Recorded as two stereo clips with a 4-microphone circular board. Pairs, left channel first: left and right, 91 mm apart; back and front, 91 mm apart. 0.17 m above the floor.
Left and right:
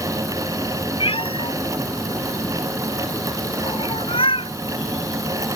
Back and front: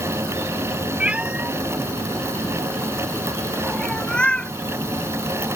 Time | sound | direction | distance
1.0 | a cat meowing | 75° left | ?